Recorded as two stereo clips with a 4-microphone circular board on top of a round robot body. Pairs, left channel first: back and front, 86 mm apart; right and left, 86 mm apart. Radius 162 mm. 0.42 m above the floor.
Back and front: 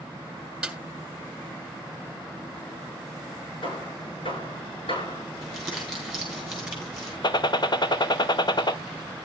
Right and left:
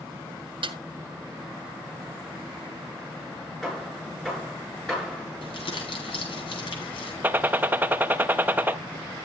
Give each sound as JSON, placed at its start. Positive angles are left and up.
{"t": 0.6, "sound": "a snare drum", "azimuth_deg": 80, "distance_m": 2.0}
{"t": 3.6, "sound": "hammering", "azimuth_deg": -175, "distance_m": 8.0}
{"t": 5.4, "sound": "crumpling", "azimuth_deg": -90, "distance_m": 7.0}
{"t": 7.2, "sound": "a gunshot", "azimuth_deg": 155, "distance_m": 0.9}